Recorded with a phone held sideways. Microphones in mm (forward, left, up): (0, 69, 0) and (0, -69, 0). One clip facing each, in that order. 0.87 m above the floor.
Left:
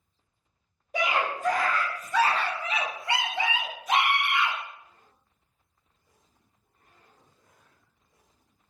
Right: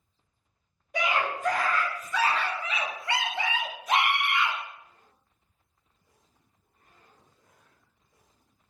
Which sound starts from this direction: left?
A scream, at 0.9 s.